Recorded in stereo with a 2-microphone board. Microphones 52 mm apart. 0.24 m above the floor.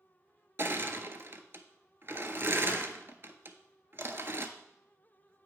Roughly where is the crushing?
Right.